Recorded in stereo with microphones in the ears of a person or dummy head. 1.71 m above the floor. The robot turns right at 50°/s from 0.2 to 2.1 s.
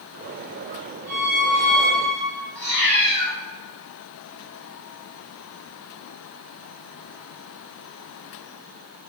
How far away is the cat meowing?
About 1.8 m.